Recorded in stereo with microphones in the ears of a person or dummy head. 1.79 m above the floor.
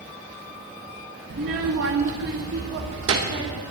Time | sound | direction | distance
1.3 | a child speaking | 40° right (ahead or behind) | 1.4 m